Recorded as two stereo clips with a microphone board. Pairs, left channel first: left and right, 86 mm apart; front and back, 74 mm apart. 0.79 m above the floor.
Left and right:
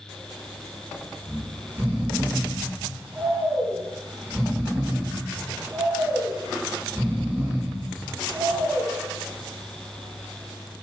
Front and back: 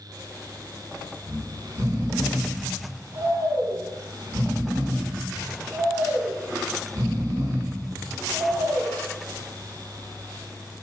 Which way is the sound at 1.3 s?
150° right.